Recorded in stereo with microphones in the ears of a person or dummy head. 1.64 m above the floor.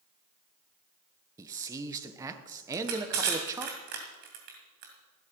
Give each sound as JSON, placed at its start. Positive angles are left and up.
{"t": 1.4, "sound": "a man speaking", "side_deg": -15, "distance_m": 1.2}
{"t": 2.7, "sound": "crushing", "side_deg": -50, "distance_m": 2.5}